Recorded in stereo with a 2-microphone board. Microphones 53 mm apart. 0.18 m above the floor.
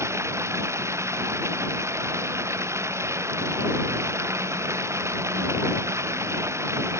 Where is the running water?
65° right (ahead or behind).